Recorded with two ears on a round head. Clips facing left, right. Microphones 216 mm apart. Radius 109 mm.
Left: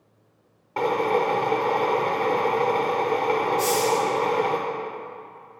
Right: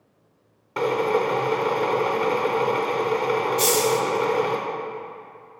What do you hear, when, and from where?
0.8 s a drill: 15° right (ahead or behind), 0.6 m
3.6 s a hiss: 45° right (ahead or behind), 0.6 m